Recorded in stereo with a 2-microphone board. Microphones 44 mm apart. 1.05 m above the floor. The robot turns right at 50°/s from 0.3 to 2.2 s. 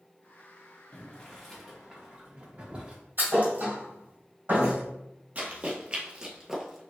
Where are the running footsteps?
30° right (ahead or behind), 1.4 m; by 6.8 s 5° right (ahead or behind), 1.1 m.